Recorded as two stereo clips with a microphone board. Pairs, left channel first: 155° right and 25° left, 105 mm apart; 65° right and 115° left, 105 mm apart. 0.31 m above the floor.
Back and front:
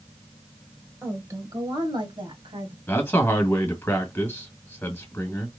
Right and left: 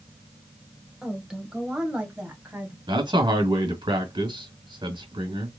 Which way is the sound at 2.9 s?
135° left.